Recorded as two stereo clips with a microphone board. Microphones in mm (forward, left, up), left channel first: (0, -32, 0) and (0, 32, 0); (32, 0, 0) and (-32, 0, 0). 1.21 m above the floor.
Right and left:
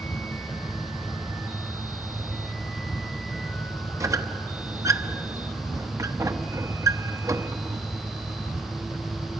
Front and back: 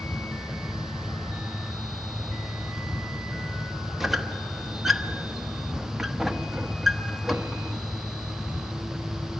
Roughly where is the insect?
Right.